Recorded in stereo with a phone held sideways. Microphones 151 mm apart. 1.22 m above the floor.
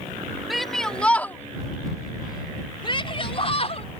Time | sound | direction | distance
0.5 | a shout | centre (ahead or behind) | ?